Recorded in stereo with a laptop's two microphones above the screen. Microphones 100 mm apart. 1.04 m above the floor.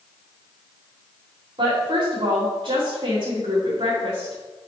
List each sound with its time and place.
1.6 s a woman speaking: 70° right (ahead or behind), 2 m